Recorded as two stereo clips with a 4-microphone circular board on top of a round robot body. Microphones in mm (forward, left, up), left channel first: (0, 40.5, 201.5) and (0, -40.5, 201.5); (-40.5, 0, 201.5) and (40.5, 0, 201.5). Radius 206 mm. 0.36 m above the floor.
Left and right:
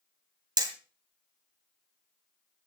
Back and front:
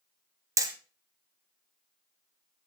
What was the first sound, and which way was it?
Hammering, 55° right.